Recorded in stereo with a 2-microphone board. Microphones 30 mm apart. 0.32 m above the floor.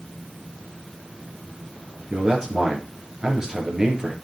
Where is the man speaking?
20° right (ahead or behind), 4 m.